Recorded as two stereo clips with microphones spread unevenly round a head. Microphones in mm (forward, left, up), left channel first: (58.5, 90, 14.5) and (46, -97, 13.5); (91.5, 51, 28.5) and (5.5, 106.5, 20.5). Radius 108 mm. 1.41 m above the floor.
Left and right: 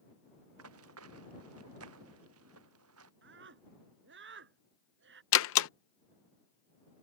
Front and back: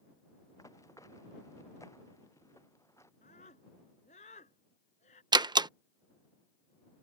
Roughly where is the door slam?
Left.